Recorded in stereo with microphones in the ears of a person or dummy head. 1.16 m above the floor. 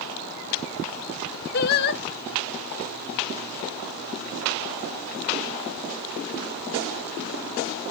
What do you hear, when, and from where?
1.5 s singing: 40° left (ahead or behind), 0.6 m